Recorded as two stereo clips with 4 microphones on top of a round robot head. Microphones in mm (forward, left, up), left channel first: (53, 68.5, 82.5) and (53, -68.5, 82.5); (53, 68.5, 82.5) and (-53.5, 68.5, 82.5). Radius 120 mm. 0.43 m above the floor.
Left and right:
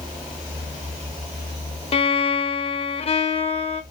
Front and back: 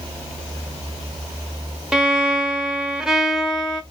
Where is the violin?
95° left, 0.6 m.